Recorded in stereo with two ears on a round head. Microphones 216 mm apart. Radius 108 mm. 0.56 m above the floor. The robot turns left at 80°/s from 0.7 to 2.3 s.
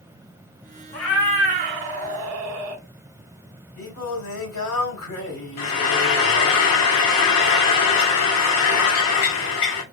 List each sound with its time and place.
0.9 s a cat meowing: 15° left, 1.0 m; by 2.8 s 95° right, 1.0 m
3.8 s singing: 60° left (ahead or behind), 2.5 m
5.6 s frying: 60° left (ahead or behind), 1.0 m